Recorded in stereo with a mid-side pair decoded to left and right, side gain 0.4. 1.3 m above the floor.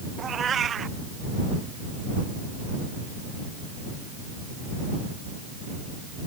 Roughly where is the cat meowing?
Ahead right.